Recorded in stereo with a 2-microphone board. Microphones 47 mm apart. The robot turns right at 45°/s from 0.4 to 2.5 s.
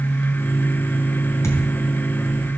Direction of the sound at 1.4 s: 90° left.